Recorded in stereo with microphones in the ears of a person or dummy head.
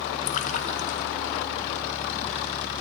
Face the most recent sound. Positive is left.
turn(degrees=50)  # may be behind; listen again after turning